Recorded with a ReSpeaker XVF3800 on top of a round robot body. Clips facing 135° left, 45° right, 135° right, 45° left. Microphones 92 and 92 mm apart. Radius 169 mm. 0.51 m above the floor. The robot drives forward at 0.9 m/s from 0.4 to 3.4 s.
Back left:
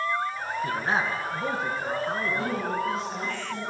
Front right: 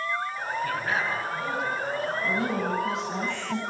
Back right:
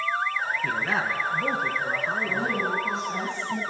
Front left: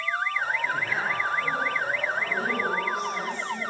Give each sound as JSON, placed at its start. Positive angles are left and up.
{"t": 0.6, "sound": "a man speaking", "azimuth_deg": -160, "distance_m": 6.5}
{"t": 2.2, "sound": "a woman speaking", "azimuth_deg": -65, "distance_m": 6.0}